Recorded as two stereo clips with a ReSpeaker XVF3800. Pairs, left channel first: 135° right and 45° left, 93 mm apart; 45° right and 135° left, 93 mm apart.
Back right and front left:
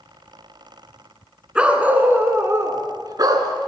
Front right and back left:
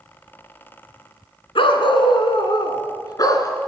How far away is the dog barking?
About 1.8 m.